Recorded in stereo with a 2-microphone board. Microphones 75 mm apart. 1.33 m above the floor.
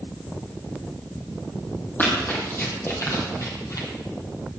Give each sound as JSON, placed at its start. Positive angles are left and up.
{"t": 2.0, "sound": "running footsteps", "side_deg": 30, "distance_m": 3.0}